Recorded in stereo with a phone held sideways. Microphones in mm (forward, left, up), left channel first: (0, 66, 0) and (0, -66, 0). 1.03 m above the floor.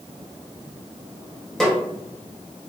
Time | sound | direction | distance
1.6 | a snare drum | 5° left (ahead or behind) | 1.0 m